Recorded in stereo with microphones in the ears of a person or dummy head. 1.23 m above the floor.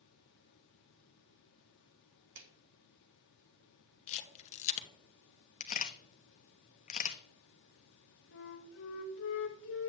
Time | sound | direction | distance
2.4 | a clap | 60° right (ahead or behind) | 1.6 m
4.1 | a camera shutter | 35° left (ahead or behind) | 1.0 m
5.6 | a camera shutter | 40° left (ahead or behind) | 0.6 m
8.3 | a flute | 65° left (ahead or behind) | 1.0 m